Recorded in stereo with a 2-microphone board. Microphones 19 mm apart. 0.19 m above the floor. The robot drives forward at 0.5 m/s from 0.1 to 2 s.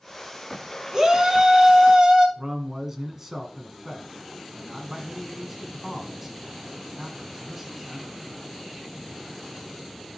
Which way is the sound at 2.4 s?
25° right (ahead or behind).